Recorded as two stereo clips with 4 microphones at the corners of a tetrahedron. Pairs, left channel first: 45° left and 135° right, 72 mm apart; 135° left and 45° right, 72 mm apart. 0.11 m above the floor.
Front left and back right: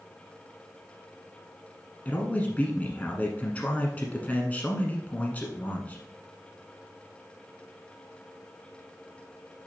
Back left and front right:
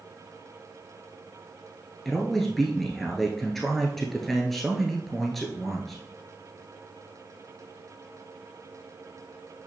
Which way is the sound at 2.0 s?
55° left.